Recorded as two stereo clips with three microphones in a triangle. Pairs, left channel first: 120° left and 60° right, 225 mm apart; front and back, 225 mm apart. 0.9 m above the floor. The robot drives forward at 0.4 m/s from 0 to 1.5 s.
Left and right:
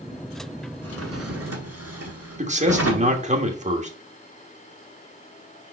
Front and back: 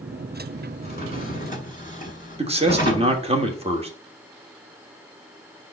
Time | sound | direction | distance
0.8 | a drawer | 50° right | 1.9 m
2.4 | a man speaking | 115° right | 1.4 m